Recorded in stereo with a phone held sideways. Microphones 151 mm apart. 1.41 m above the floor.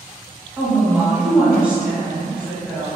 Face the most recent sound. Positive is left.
turn(degrees=-10)  # may be behind; listen again after turning